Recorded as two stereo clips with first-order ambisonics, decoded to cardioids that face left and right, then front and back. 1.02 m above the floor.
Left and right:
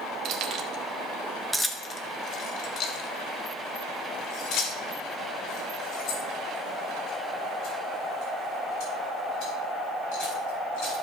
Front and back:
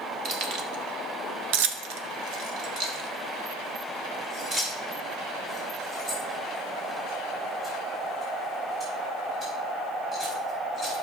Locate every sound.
0.2 s keys jangling: 125° right, 1.6 m; by 10.9 s 100° left, 9.5 m